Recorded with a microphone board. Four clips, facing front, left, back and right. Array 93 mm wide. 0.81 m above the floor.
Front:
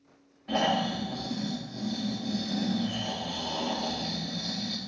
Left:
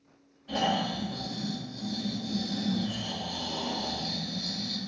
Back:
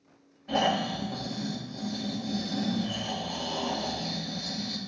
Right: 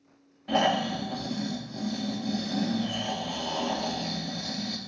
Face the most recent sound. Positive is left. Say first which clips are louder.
# right 4 dB, even
turn(degrees=-75)